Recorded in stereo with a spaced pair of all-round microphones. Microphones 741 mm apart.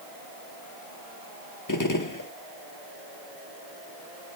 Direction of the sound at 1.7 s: 25° left (ahead or behind).